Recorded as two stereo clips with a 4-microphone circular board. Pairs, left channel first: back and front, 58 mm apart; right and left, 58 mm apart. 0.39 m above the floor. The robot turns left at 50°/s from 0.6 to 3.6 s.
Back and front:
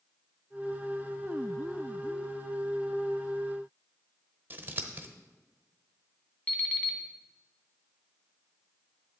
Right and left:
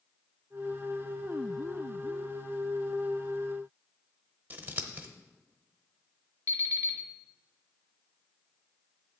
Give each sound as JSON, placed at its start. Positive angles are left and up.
{"t": 4.5, "sound": "scissors", "azimuth_deg": 45, "distance_m": 1.0}
{"t": 6.5, "sound": "an alarm clock", "azimuth_deg": 110, "distance_m": 1.4}